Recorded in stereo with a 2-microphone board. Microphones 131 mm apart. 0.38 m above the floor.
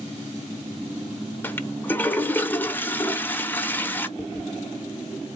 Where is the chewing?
10° left (ahead or behind), 2.5 m.